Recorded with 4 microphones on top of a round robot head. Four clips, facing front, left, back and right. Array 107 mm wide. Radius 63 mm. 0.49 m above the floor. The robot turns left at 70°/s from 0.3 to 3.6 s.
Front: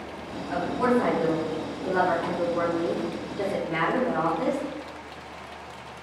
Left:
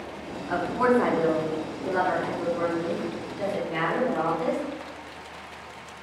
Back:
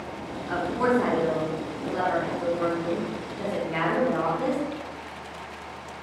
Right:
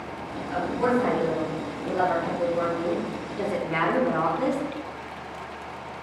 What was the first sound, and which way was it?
A woman speaking, 130° left.